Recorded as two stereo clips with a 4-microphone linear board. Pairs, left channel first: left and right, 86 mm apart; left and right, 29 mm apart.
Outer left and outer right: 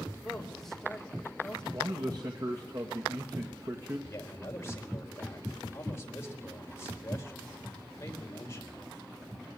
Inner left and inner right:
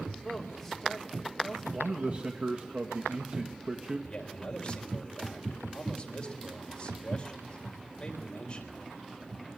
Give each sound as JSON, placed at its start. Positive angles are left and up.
{"t": 0.2, "sound": "a woman speaking", "side_deg": 5, "distance_m": 4.0}
{"t": 1.7, "sound": "a man speaking", "side_deg": -50, "distance_m": 1.8}
{"t": 4.1, "sound": "a man speaking", "side_deg": 30, "distance_m": 4.0}